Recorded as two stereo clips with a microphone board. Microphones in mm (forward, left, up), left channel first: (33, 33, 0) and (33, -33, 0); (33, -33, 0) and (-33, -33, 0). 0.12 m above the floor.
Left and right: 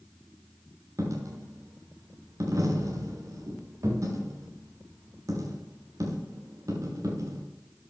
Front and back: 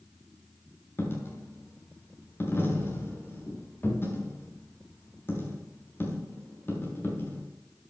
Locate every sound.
1.0 s a dropped coin: 55° right, 4 m